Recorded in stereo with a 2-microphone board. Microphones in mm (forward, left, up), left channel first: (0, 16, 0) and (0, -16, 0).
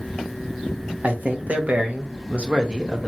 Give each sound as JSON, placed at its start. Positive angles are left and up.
{"t": 1.0, "sound": "a man speaking", "side_deg": -60, "distance_m": 1.2}